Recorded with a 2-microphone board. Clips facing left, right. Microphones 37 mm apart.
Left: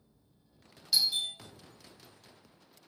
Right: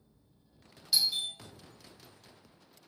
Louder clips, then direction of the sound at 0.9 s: Left 1 dB; 5° right (ahead or behind).